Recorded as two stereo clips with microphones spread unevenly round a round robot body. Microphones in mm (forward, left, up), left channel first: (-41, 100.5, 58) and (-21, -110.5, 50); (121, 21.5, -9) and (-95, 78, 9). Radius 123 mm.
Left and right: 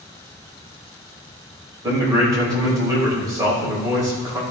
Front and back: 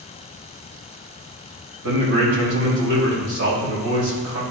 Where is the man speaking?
160° right, 4.5 m.